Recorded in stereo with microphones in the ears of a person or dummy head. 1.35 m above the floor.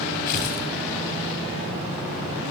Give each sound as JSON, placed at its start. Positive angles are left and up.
{"t": 0.3, "sound": "tearing paper", "side_deg": 50, "distance_m": 4.0}